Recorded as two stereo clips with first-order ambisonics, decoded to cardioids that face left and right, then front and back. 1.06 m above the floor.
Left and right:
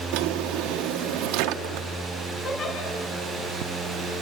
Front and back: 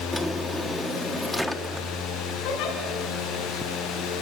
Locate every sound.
0.1 s a drawer: 90° right, 1.2 m
2.4 s a giggle: 25° left, 5.5 m